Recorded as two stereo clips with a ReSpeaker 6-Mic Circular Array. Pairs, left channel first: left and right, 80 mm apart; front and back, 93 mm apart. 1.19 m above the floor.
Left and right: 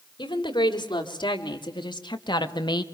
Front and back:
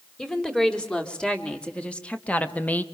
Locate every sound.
0.2 s a woman speaking: 80° left, 3.5 m; by 2.8 s 70° left, 1.5 m